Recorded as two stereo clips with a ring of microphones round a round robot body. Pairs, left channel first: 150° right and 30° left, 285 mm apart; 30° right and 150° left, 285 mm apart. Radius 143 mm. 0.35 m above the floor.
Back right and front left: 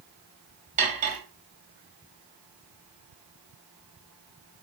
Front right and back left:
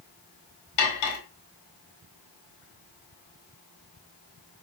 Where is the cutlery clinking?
35° right, 1.2 m.